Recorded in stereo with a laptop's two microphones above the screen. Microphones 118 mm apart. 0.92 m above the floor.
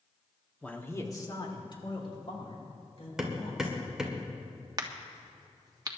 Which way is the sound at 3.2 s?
5° right (ahead or behind).